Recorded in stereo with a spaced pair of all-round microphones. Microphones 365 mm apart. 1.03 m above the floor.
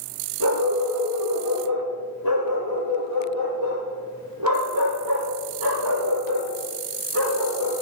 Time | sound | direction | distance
0.4 | a dog barking | 75° right (ahead or behind) | 8.5 m